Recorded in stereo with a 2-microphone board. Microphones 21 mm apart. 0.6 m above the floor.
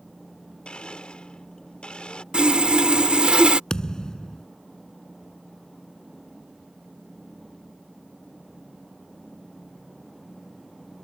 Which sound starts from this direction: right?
Sawing, at 2.3 s.